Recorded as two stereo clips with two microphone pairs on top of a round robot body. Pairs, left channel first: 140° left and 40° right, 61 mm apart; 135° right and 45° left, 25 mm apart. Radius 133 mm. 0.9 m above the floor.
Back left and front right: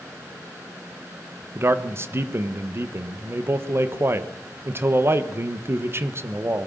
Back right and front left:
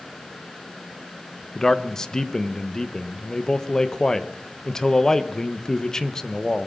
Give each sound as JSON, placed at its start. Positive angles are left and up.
{"t": 1.6, "sound": "a man speaking", "azimuth_deg": -65, "distance_m": 1.3}